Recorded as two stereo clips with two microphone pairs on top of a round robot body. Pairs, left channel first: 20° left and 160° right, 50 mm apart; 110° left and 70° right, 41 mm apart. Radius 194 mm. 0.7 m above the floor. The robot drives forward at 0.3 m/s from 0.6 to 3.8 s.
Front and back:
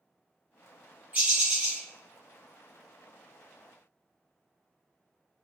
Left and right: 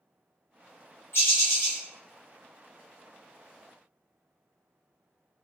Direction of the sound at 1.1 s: 140° left.